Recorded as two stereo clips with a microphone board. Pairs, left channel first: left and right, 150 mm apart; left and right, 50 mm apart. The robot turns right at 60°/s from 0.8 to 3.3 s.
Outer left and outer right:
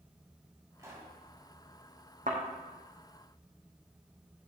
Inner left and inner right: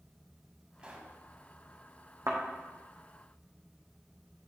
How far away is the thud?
About 2 m.